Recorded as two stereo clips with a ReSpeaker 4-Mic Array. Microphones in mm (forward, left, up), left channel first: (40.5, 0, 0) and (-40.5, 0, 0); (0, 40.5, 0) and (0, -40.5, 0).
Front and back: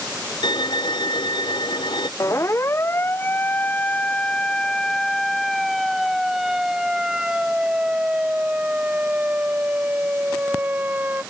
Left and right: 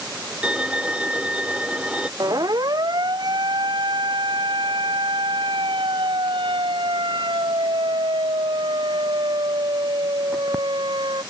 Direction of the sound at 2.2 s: 50° right.